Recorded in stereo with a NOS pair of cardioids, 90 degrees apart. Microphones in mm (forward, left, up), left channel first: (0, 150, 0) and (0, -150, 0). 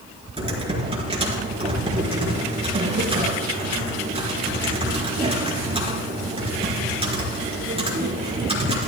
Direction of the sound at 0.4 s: 20° right.